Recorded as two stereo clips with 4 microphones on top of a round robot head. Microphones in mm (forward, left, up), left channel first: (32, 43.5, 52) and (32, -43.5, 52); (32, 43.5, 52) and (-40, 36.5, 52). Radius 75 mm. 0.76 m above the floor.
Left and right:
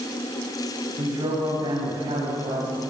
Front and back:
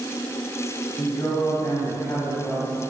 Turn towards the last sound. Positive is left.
turn(degrees=-70)